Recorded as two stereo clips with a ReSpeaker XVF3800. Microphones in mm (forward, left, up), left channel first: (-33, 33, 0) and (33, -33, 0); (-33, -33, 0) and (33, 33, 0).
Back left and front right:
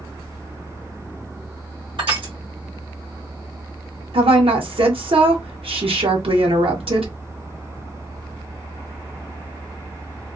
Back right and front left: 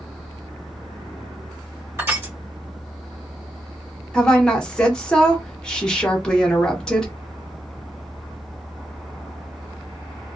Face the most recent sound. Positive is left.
turn(degrees=-55)